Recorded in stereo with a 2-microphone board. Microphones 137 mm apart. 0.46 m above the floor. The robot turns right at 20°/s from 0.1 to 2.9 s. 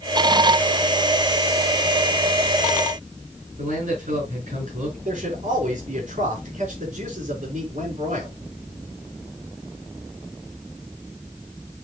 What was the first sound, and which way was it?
A man speaking, 65° right (ahead or behind).